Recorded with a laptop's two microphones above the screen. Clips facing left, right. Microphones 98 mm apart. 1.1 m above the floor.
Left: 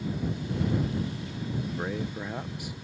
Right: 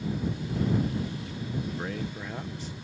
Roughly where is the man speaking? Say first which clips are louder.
Left 1 dB; centre.